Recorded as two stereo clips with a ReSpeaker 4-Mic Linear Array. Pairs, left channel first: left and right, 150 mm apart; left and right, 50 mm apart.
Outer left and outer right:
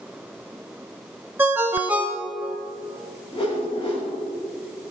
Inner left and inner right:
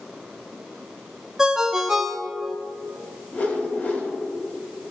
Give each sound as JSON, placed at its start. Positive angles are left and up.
{"t": 1.4, "sound": "a ringtone", "side_deg": -15, "distance_m": 0.9}
{"t": 3.3, "sound": "a whoosh", "side_deg": 40, "distance_m": 3.5}